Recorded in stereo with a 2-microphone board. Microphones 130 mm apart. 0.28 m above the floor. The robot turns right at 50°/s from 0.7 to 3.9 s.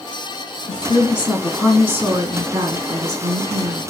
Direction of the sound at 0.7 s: 135° left.